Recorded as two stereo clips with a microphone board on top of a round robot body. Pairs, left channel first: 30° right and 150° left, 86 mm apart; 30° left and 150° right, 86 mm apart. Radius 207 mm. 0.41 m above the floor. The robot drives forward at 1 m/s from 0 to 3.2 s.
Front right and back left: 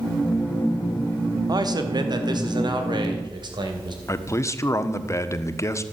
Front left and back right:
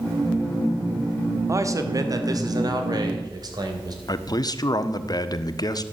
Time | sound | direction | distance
1.5 | a man speaking | 165° left | 1.6 m
4.1 | a man speaking | 15° left | 1.5 m